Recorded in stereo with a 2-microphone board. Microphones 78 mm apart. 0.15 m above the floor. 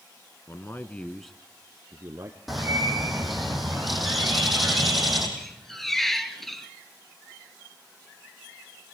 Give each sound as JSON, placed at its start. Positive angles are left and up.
{"t": 0.5, "sound": "a man speaking", "side_deg": 40, "distance_m": 1.3}
{"t": 2.5, "sound": "a bird", "side_deg": 0, "distance_m": 5.0}
{"t": 5.4, "sound": "a squeak", "side_deg": 5, "distance_m": 1.6}